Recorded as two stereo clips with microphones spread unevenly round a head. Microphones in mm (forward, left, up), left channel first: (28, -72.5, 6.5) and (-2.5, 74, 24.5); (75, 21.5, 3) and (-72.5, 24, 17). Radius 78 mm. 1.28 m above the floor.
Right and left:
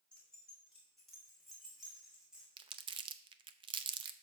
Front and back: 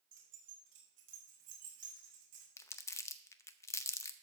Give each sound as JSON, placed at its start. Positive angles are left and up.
{"t": 0.1, "sound": "keys jangling", "azimuth_deg": -165, "distance_m": 3.0}
{"t": 2.6, "sound": "crumpling", "azimuth_deg": 70, "distance_m": 0.6}